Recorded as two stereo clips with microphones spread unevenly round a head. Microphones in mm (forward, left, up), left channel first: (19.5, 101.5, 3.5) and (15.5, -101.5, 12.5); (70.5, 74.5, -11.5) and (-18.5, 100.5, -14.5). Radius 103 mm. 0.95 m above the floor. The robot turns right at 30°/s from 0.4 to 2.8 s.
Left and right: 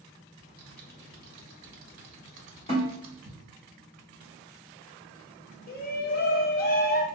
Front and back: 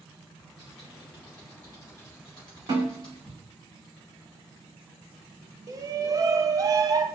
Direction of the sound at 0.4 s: 115° right.